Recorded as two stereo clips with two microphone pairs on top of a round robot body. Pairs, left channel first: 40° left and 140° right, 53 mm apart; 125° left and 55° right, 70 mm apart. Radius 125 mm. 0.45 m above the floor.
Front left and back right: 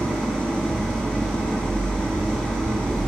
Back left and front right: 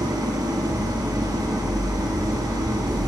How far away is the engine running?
About 6.5 m.